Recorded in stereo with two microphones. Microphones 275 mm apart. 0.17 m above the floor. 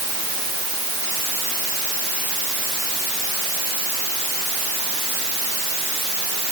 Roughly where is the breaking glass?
No breaking glass in this recording.